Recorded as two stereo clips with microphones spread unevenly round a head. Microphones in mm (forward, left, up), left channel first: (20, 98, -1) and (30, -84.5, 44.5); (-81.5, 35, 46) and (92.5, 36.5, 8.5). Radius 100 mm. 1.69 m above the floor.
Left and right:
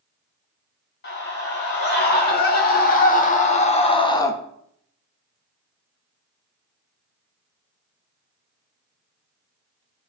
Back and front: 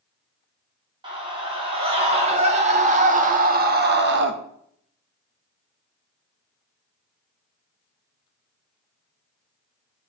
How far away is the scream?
About 2.5 m.